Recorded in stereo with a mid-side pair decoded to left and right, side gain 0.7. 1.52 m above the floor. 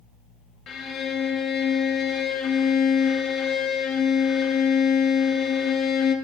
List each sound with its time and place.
0.7 s a violin: 45° left, 0.8 m